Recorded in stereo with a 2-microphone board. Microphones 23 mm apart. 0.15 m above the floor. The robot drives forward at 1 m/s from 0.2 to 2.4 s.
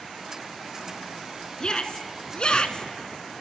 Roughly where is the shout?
Left.